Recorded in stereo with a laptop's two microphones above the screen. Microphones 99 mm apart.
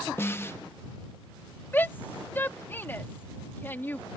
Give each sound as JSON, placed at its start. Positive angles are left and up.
{"t": 0.2, "sound": "a snare drum", "side_deg": 25}
{"t": 1.7, "sound": "a shout", "side_deg": 20}